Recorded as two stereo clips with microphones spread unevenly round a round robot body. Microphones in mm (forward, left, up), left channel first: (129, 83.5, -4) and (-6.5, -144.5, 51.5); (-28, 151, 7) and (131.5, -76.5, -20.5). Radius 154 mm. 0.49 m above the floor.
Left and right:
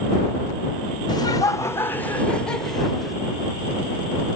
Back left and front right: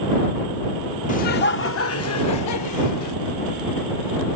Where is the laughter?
80° left; by 3.2 s 145° left.